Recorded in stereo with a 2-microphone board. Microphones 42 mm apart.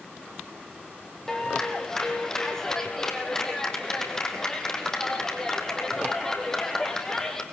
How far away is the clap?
About 3.5 m.